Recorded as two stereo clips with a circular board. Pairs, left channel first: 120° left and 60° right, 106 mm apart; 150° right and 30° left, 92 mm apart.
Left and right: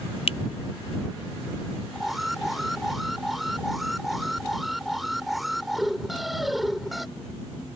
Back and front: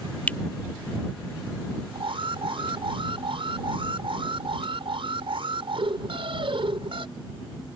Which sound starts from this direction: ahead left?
An alarm, at 1.9 s.